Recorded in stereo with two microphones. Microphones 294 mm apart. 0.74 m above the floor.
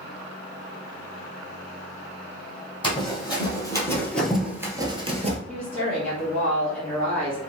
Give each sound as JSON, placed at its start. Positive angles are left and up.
{"t": 2.8, "sound": "running footsteps", "side_deg": 20, "distance_m": 1.6}
{"t": 5.5, "sound": "a woman speaking", "side_deg": 5, "distance_m": 1.3}